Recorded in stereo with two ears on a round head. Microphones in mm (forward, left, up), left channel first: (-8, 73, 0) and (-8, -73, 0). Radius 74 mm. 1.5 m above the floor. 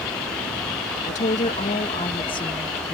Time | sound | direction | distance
1.0 | a woman speaking | 45° left (ahead or behind) | ?